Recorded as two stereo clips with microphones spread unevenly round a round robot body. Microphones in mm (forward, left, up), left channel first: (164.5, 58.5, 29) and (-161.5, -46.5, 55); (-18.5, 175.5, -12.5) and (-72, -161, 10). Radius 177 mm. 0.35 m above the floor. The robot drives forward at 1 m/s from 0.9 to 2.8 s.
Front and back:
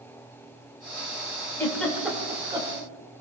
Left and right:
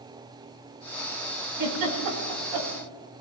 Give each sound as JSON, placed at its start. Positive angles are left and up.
{"t": 1.6, "sound": "a giggle", "azimuth_deg": -65, "distance_m": 3.0}